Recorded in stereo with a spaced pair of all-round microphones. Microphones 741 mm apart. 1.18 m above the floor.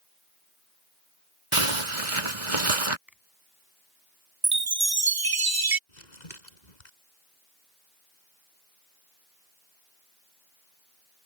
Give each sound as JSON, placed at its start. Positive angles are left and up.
{"t": 1.5, "sound": "a zipper", "side_deg": -40}
{"t": 3.1, "sound": "a finger snap", "side_deg": 0}
{"t": 4.4, "sound": "a chime", "side_deg": -30}
{"t": 5.9, "sound": "crumpling", "side_deg": 70}